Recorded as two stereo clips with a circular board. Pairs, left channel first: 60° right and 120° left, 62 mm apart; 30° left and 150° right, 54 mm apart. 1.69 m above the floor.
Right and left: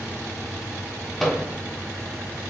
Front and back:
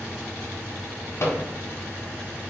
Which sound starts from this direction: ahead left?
A microwave, at 1.2 s.